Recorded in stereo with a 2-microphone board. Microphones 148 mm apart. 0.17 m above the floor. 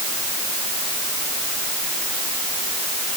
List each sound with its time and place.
Only background noise.